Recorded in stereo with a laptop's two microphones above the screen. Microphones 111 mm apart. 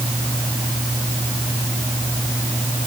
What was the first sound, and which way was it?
Only background noise.